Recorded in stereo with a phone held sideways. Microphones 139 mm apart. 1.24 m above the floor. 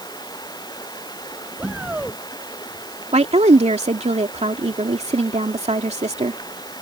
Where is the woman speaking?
50° right (ahead or behind).